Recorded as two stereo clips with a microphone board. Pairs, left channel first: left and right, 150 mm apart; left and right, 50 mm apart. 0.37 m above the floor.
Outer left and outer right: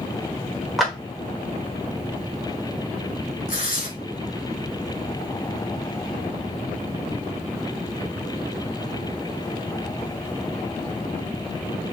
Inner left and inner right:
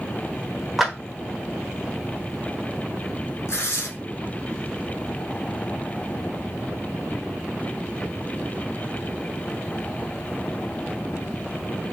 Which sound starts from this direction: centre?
A clap, at 0.8 s.